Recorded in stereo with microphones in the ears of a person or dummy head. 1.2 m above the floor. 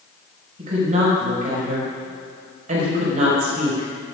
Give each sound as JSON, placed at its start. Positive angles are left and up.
{"t": 0.6, "sound": "a woman speaking", "side_deg": -45, "distance_m": 5.0}